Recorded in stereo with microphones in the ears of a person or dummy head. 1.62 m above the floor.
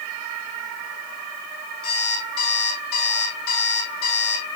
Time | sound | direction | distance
1.8 | an alarm clock | 80° left | 5.5 m